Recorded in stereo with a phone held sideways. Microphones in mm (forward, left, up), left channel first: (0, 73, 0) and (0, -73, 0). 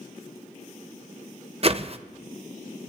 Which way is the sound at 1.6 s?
40° right (ahead or behind).